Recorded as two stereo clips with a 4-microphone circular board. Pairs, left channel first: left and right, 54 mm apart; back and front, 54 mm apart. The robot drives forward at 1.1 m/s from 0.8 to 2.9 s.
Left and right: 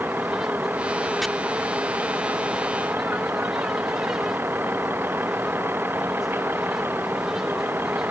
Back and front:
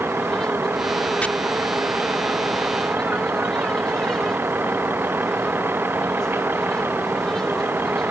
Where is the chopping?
Straight behind.